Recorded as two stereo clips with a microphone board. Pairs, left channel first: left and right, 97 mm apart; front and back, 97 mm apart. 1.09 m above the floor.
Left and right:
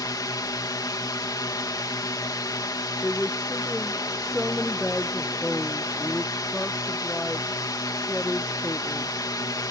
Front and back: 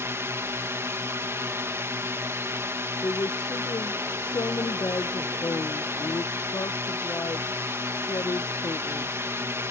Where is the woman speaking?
10° left.